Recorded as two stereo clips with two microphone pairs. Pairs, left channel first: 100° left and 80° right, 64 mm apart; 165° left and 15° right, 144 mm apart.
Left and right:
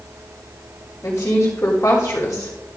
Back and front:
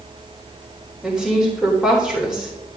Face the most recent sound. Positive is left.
turn(degrees=70)